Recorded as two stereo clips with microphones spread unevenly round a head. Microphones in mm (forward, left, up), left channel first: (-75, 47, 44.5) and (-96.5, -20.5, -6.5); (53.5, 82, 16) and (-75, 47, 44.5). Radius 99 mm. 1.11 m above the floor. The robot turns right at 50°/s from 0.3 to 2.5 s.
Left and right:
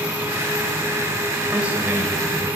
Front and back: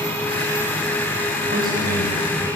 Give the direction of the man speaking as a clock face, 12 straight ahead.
6 o'clock.